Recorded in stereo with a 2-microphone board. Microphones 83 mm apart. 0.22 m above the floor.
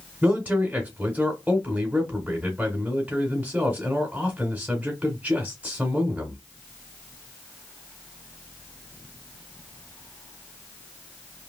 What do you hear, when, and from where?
0.2 s a man speaking: 20° right (ahead or behind), 1.2 m